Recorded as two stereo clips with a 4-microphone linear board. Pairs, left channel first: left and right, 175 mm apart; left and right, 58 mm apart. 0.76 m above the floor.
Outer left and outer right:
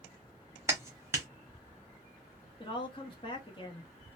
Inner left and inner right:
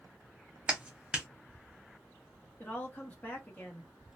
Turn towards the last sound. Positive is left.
turn(degrees=30)  # may be behind; listen again after turning